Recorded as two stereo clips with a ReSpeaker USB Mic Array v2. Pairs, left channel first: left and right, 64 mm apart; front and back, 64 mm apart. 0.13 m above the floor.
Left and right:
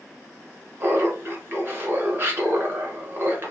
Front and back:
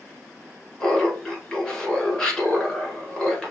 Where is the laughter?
70° right, 1.3 m.